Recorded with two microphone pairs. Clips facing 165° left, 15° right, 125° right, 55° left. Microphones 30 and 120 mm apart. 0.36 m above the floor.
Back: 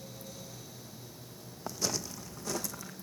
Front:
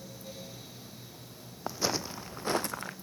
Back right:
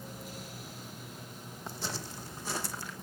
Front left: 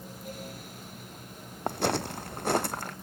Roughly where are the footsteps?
Ahead left.